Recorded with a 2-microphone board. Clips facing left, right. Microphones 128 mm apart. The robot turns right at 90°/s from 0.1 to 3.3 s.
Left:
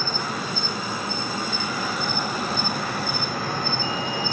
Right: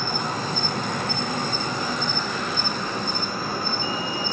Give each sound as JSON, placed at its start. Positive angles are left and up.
{"t": 0.0, "sound": "an insect", "azimuth_deg": -175, "distance_m": 6.0}